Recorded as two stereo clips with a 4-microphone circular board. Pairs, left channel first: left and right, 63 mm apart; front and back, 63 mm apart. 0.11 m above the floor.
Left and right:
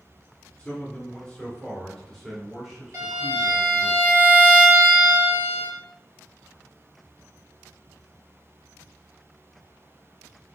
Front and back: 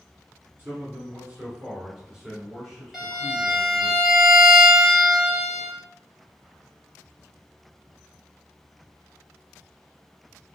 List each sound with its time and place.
0.6 s a man speaking: 145° left, 1.9 m; by 3.9 s 60° right, 1.7 m
2.9 s a violin: 95° right, 1.7 m